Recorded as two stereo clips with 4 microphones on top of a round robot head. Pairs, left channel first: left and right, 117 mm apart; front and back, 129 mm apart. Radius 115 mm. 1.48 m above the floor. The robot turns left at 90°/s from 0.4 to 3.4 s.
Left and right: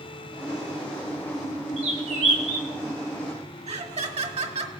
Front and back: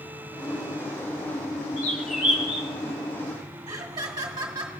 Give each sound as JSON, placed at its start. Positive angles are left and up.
{"t": 1.8, "sound": "a bird", "azimuth_deg": -60, "distance_m": 1.2}
{"t": 3.7, "sound": "laughter", "azimuth_deg": -115, "distance_m": 1.8}